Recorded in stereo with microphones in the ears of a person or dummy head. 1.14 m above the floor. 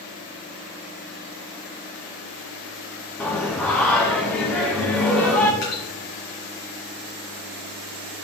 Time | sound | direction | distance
3.2 | singing | 10° left (ahead or behind) | 1.3 m
5.6 | dripping | 50° left (ahead or behind) | 4.5 m